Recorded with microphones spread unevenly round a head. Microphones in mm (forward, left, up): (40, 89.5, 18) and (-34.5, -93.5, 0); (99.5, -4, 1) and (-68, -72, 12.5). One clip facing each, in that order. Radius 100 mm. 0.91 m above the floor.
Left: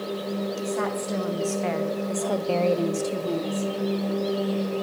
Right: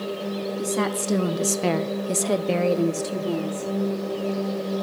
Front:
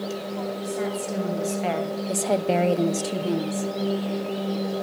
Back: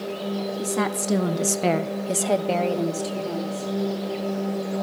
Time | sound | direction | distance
0.6 | a woman speaking | 160° right | 1.9 m